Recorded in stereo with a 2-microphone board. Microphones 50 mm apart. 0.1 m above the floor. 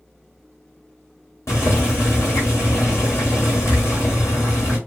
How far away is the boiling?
About 1.6 m.